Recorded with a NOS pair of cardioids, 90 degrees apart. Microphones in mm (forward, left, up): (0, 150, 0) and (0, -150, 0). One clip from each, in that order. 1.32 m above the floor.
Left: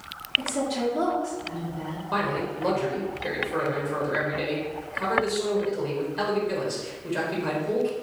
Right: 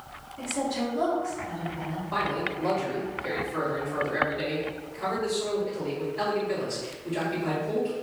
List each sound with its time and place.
0.4 s a woman speaking: 65° left, 1.6 m
2.1 s a man speaking: 50° left, 1.7 m